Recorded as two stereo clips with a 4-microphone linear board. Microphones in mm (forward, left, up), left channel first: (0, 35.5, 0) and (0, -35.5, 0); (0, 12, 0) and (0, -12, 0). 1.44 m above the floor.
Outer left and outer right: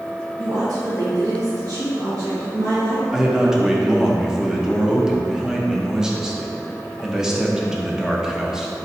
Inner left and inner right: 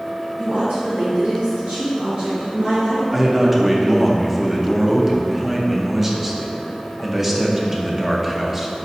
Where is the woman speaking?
70° right (ahead or behind), 1.3 m.